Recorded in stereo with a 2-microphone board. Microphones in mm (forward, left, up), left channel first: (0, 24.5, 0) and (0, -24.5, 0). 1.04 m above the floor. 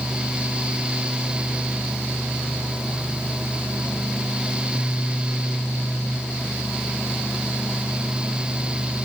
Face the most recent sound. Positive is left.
No sound to turn to.